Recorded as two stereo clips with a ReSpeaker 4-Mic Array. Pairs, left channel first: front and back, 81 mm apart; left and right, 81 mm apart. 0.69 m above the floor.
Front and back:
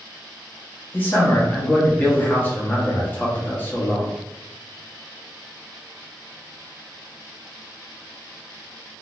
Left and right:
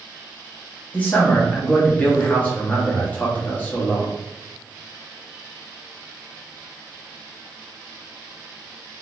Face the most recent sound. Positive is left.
turn(degrees=40)